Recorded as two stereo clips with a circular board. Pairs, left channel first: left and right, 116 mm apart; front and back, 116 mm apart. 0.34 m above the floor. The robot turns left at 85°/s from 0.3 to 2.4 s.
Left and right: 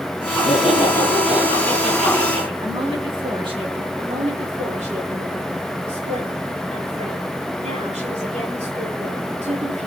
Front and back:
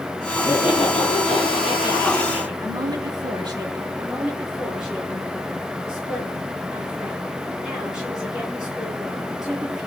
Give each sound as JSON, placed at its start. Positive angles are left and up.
{"t": 0.3, "sound": "laughter", "azimuth_deg": 80, "distance_m": 5.5}
{"t": 2.6, "sound": "a woman speaking", "azimuth_deg": -130, "distance_m": 4.0}
{"t": 4.0, "sound": "a woman speaking", "azimuth_deg": -95, "distance_m": 8.0}